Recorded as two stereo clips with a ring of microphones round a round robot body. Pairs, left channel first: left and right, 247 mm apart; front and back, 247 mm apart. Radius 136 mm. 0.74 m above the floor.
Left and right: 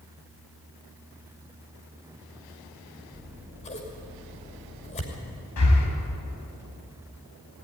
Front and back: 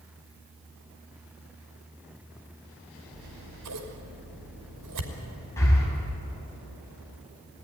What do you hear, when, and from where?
3.1 s scissors: 155° left, 2.5 m
5.6 s breathing: 80° left, 4 m